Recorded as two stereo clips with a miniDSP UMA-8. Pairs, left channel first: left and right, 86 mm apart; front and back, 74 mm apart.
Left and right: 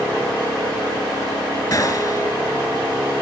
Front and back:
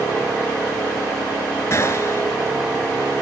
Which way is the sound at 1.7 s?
40° left.